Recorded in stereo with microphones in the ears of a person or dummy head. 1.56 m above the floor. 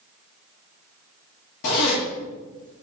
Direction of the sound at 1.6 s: 45° left (ahead or behind).